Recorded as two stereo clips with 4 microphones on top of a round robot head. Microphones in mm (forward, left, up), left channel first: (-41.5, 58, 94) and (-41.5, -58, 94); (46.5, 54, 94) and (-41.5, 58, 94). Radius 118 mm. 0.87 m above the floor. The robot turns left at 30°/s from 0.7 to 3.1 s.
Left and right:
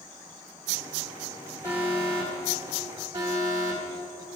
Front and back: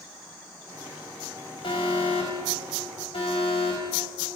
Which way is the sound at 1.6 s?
20° left.